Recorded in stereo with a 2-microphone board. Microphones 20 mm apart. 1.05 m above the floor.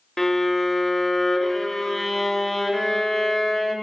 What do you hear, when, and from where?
0.2 s a violin: 20° left (ahead or behind), 0.7 m